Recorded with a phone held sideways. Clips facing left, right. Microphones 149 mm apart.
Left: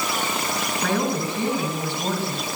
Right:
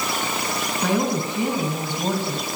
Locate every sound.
0.8 s a woman speaking: 15° right (ahead or behind), 8 m; by 2.5 s 20° right (ahead or behind), 7 m